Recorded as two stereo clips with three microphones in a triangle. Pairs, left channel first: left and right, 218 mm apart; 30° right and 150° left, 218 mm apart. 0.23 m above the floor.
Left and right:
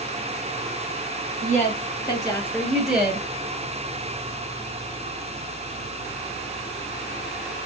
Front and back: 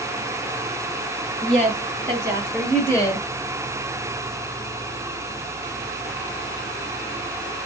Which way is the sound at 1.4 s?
125° left.